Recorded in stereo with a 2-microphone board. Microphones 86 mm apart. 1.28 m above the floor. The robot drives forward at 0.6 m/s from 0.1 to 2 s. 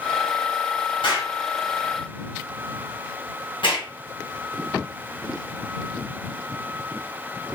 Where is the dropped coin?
No dropped coin in this recording.